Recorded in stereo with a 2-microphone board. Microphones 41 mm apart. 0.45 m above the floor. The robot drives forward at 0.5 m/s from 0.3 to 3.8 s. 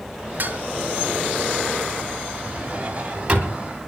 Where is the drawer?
30° right (ahead or behind), 1.5 m; by 3.7 s 20° right (ahead or behind), 2 m.